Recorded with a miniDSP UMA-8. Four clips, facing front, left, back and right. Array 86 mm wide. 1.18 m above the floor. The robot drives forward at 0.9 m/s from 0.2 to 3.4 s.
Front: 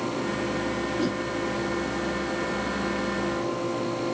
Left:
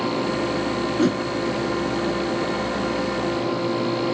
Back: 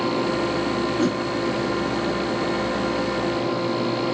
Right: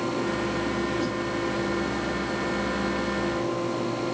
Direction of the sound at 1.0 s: 115° left.